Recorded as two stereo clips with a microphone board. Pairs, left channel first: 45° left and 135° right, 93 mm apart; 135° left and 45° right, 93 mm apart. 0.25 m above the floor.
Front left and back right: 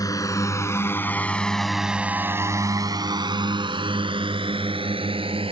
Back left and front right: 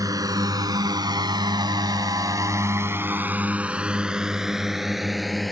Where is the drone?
Straight ahead; by 5.5 s 135° right.